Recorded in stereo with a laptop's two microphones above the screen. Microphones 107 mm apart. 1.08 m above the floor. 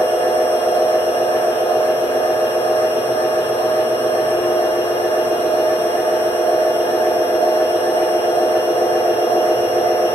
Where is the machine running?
50° left (ahead or behind), 3.5 m.